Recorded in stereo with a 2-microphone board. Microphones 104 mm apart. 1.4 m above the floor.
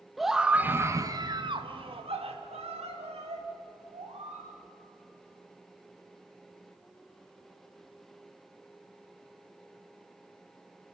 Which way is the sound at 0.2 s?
Centre (ahead or behind).